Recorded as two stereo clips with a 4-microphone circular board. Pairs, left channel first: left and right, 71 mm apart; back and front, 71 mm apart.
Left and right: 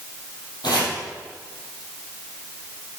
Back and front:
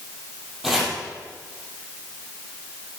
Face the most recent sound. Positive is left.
turn(degrees=85)